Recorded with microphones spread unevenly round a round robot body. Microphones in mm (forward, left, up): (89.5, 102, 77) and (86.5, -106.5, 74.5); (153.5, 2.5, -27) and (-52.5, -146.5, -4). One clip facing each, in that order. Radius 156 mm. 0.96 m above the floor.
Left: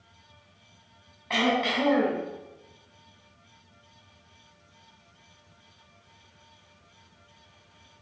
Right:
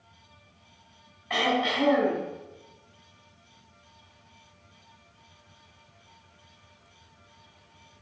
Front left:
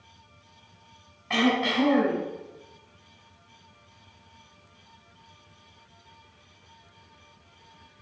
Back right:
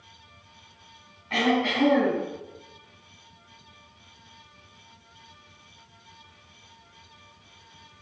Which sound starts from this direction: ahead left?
Throat clearing, at 1.3 s.